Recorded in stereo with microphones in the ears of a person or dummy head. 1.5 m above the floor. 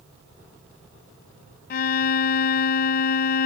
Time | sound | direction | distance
1.7 | a violin | 50° left (ahead or behind) | ?